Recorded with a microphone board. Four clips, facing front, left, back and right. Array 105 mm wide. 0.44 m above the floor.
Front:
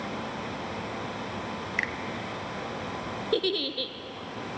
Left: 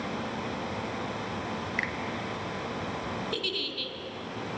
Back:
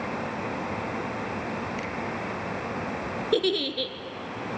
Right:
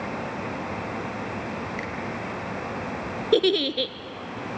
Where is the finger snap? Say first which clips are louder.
Right 1 dB, even; 25° left, 2 m.